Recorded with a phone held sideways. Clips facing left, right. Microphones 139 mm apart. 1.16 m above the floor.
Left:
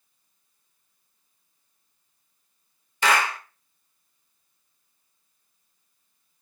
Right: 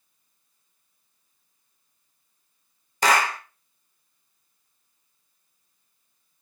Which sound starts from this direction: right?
A clap, at 3.0 s.